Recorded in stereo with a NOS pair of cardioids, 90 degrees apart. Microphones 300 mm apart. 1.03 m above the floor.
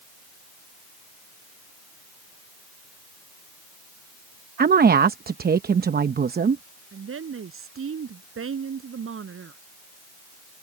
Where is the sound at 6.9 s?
45° right.